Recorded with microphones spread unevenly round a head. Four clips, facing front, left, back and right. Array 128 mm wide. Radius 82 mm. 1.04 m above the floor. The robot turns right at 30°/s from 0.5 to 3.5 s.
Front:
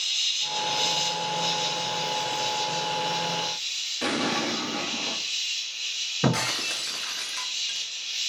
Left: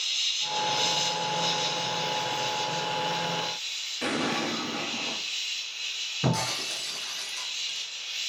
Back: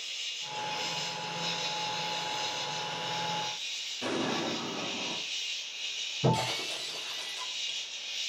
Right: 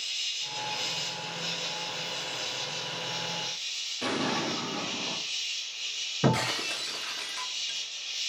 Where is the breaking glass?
20° right, 2.5 m.